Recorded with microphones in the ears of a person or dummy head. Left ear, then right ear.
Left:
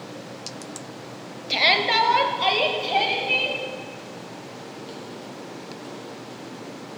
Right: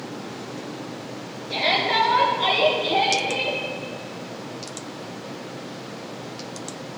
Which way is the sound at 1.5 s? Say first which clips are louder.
Left 2 dB; 55° left (ahead or behind).